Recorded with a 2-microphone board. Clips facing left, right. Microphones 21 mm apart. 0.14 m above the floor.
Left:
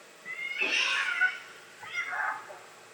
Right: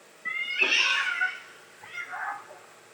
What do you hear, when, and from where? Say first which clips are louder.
0.2 s a cat meowing: right 6 dB; 55° right (ahead or behind), 0.7 m; by 3.0 s 50° left (ahead or behind), 1.2 m